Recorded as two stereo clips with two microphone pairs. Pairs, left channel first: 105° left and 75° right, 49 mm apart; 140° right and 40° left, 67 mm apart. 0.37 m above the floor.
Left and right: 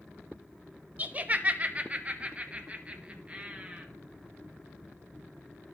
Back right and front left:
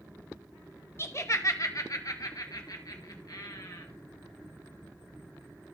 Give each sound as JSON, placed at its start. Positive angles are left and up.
{"t": 1.0, "sound": "laughter", "azimuth_deg": -115, "distance_m": 1.0}